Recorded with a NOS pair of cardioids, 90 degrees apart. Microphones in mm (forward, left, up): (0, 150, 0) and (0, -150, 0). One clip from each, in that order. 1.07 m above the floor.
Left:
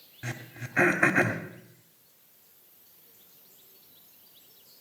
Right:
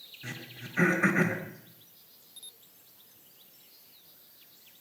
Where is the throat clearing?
65° left, 2.5 m.